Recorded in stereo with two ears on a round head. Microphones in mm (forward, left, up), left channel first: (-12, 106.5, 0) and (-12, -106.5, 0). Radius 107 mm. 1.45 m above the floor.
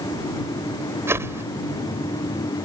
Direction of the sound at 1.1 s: 10° right (ahead or behind).